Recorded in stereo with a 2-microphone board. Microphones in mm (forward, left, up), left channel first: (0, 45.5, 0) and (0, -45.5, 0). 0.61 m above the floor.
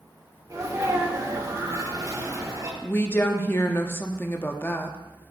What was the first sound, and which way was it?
A sneeze, 40° right (ahead or behind).